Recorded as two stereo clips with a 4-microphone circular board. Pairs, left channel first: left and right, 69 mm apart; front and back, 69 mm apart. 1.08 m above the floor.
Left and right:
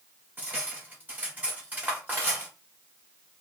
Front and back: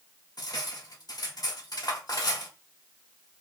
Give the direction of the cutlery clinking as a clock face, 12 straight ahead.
1 o'clock.